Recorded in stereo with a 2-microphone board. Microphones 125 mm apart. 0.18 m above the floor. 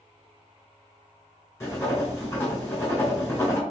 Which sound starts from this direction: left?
Writing, at 1.6 s.